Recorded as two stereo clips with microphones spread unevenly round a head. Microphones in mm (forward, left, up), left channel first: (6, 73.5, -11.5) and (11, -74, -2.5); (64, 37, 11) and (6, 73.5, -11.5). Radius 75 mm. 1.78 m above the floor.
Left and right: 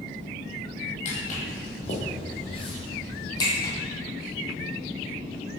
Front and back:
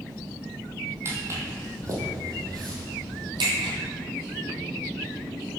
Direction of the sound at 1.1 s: 90° left.